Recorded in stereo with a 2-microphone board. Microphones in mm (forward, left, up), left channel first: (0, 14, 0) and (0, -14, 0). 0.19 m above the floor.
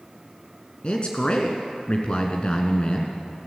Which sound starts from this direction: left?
A man speaking, at 0.8 s.